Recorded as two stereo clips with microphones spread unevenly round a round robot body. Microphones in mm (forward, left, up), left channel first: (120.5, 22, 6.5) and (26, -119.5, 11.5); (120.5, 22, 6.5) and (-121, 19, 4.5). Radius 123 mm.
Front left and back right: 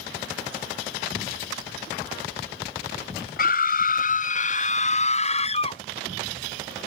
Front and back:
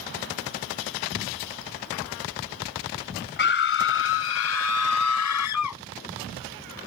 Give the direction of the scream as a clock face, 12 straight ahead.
11 o'clock.